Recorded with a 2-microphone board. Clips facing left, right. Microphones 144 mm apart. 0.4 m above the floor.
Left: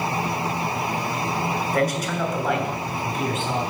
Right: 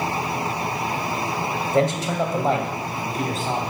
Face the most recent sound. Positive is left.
turn(degrees=-40)  # may be behind; listen again after turning